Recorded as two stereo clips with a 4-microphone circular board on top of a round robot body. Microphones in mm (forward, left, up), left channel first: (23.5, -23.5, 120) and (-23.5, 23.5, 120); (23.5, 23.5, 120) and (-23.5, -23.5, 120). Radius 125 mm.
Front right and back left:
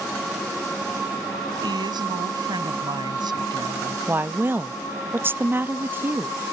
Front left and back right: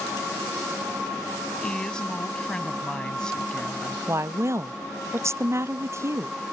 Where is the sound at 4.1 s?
170° right.